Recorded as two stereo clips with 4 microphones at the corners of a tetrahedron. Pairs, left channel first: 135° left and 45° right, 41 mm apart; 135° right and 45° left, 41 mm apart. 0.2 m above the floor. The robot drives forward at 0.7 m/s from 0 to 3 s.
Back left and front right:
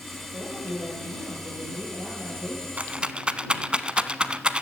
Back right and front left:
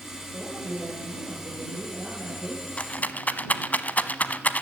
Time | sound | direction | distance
0.3 | a man speaking | 5° right | 5.5 m
2.8 | a rattle | 85° right | 0.7 m